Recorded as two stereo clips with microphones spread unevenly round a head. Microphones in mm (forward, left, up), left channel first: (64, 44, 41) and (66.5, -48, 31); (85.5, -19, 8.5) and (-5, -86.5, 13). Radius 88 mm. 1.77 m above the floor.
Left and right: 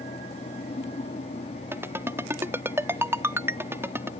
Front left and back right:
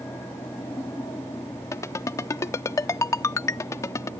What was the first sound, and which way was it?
A fan, 115° left.